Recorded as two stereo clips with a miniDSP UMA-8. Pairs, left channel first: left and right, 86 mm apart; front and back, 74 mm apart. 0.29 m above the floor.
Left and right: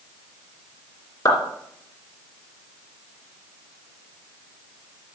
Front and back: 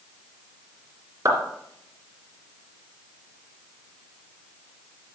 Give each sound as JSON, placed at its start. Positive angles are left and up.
{"t": 1.2, "sound": "a clap", "azimuth_deg": 140, "distance_m": 2.5}